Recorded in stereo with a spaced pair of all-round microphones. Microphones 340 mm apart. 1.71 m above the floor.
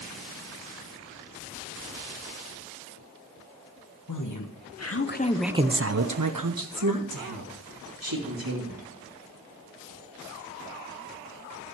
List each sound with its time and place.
4.1 s a woman speaking: 60° left (ahead or behind), 1.6 m; by 8.9 s 75° right (ahead or behind), 3.5 m